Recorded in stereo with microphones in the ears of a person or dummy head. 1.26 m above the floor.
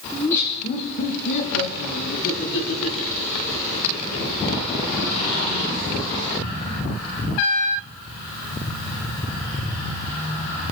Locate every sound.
0.1 s laughter: 5° left (ahead or behind), 1.1 m; by 4.4 s 85° left, 6 m